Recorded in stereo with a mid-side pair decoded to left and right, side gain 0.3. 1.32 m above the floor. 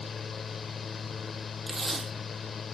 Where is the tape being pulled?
55° right, 2.5 m.